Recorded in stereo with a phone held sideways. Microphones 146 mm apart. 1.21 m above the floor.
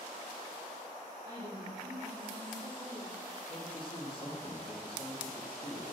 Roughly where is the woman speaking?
Right.